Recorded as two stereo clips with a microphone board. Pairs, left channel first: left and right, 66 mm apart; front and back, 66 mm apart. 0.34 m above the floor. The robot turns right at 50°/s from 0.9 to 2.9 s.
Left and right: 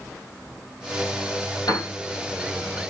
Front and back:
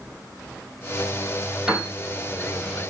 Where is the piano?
100° left, 3 m; by 1.9 s 110° left, 3 m.